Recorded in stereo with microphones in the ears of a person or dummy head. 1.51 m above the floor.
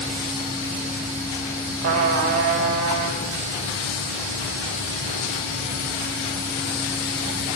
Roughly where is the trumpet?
Right.